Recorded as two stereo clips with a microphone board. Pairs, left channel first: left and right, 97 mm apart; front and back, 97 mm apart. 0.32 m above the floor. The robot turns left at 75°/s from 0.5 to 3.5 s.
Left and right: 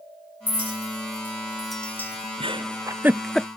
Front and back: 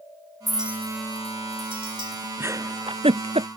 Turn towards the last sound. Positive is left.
turn(degrees=165)